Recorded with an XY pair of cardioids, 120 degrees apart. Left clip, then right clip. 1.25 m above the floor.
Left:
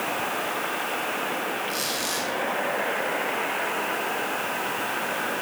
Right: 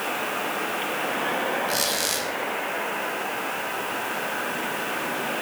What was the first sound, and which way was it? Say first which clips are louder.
A squeak: right 3 dB; 40° right.